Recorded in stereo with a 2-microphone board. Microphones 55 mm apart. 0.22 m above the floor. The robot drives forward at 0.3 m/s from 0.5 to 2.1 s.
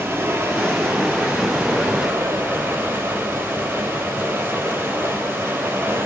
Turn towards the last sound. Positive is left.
turn(degrees=-40)  # may be behind; listen again after turning